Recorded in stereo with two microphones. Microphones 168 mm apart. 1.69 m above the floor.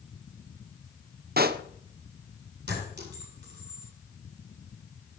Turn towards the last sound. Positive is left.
turn(degrees=-75)  # may be behind; listen again after turning